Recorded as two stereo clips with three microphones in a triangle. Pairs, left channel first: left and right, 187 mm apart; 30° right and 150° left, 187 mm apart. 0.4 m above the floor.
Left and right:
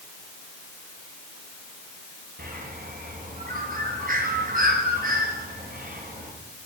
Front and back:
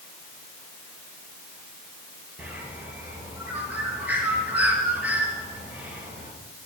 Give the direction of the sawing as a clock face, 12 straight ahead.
No sawing in this recording.